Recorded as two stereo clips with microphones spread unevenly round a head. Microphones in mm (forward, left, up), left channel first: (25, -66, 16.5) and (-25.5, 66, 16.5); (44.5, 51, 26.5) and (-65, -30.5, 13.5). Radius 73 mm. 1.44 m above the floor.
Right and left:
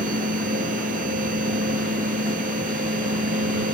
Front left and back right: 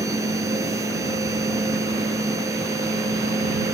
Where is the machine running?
150° left.